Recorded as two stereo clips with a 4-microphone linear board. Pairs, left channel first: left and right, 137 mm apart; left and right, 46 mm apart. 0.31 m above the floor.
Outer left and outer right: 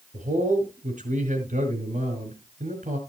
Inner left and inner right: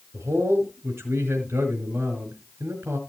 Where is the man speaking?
75° right (ahead or behind), 5 m.